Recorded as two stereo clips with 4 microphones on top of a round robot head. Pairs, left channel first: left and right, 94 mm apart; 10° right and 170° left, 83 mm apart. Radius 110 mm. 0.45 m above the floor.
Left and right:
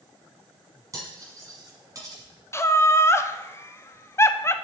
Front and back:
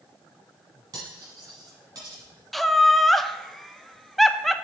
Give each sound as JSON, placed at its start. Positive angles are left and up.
{"t": 0.9, "sound": "cutlery clinking", "azimuth_deg": -145, "distance_m": 3.0}
{"t": 2.5, "sound": "laughter", "azimuth_deg": 75, "distance_m": 0.8}